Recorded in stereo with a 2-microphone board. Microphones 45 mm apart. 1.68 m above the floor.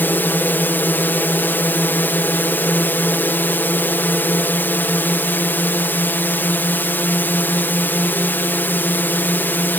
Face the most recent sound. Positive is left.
turn(degrees=50)  # may be behind; listen again after turning